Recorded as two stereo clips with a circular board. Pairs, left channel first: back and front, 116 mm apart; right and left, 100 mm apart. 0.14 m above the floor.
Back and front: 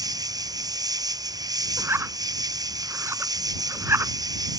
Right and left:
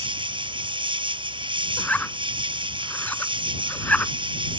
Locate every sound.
0.0 s an insect: 55° left
1.8 s a zipper: 35° right